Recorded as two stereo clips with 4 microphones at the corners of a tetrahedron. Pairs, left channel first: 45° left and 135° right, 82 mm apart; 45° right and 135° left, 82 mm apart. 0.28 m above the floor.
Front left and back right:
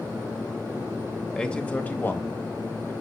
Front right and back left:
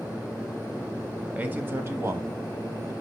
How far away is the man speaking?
About 0.9 m.